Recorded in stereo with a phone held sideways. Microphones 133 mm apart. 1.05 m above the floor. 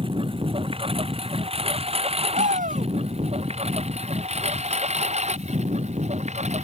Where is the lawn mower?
45° right (ahead or behind); by 6.6 s 60° right (ahead or behind).